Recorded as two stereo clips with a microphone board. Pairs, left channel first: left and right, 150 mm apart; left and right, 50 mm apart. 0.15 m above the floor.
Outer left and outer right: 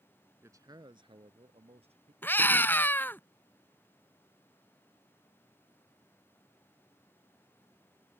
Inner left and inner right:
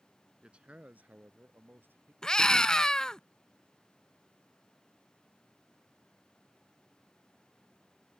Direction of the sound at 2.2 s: 15° left (ahead or behind).